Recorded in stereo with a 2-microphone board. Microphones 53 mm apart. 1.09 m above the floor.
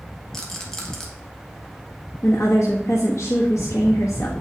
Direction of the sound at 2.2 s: 65° left (ahead or behind).